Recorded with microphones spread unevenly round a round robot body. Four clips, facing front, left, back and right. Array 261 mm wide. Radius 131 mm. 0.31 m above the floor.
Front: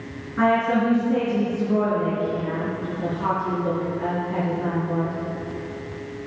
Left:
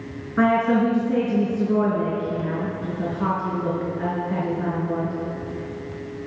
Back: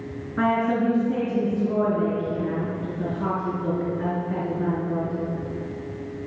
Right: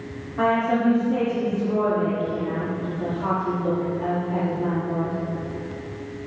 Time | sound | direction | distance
0.4 | a woman speaking | 90° left | 4 m